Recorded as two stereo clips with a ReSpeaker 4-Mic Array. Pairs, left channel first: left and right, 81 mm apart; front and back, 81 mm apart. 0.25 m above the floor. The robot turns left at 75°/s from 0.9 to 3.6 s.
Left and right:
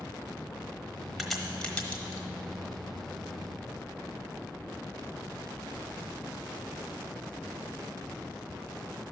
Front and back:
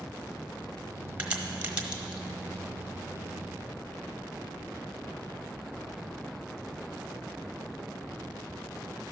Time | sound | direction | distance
1.2 | a crack | straight behind | 1.1 m